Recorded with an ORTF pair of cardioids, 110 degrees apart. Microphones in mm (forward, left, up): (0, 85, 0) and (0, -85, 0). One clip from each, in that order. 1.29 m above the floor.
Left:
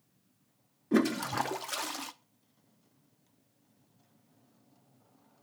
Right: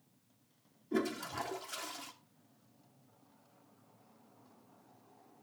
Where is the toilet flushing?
45° left, 0.6 m.